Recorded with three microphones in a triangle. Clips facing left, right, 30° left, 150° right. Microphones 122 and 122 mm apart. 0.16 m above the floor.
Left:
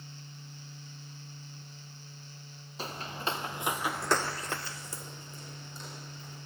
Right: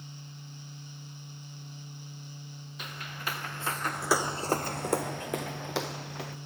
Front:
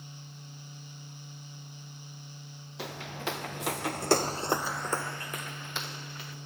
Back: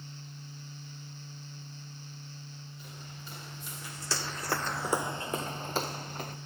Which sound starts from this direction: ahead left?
Footsteps, at 2.8 s.